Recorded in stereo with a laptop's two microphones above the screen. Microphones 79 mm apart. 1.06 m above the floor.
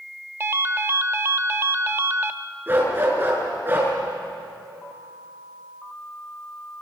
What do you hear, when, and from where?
0.4 s a ringtone: 30° right (ahead or behind), 1.1 m
2.7 s a dog barking: 25° right (ahead or behind), 7 m